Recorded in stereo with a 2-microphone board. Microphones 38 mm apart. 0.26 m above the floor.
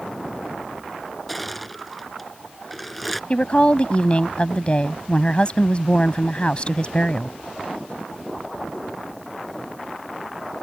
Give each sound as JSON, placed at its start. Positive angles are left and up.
{"t": 1.3, "sound": "crushing", "side_deg": 0}
{"t": 3.3, "sound": "a woman speaking", "side_deg": 30}